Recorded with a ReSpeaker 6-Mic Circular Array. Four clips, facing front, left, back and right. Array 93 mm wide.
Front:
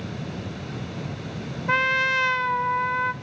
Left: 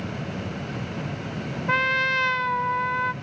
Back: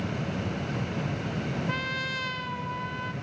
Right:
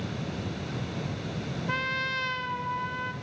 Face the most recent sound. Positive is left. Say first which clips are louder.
# left 9 dB, front 9 dB
turn(degrees=40)